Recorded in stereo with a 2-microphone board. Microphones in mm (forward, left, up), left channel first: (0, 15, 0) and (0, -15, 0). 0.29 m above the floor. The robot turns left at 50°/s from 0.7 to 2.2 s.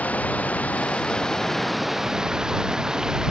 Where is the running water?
55° left; by 3.3 s 20° right.